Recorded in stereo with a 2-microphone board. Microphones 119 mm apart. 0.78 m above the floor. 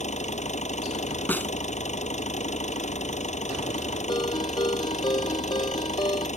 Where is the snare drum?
15° left (ahead or behind).